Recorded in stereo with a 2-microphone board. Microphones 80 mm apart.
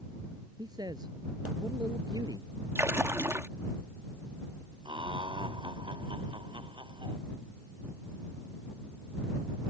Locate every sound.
0.6 s a man speaking: 55° right (ahead or behind)
2.8 s a splash: 30° right (ahead or behind)
4.8 s laughter: 85° right